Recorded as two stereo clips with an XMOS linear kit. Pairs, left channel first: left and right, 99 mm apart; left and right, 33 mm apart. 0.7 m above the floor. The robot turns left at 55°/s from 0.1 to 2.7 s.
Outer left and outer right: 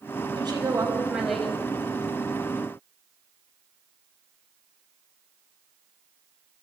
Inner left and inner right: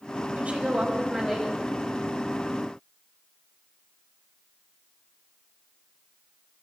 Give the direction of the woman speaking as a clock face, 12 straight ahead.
4 o'clock.